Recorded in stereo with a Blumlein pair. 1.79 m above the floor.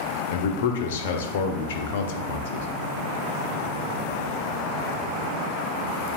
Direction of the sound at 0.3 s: 55° left.